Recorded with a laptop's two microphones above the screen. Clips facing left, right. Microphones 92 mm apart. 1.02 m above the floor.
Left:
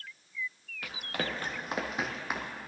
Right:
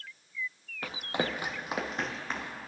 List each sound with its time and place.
0.8 s running footsteps: 35° right (ahead or behind), 1.3 m; by 2.6 s 15° left (ahead or behind), 2 m